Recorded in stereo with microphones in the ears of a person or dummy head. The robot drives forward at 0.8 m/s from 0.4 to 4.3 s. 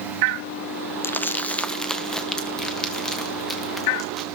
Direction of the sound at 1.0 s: 10° left (ahead or behind).